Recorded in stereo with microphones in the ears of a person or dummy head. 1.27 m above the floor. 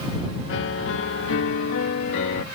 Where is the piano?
60° left (ahead or behind).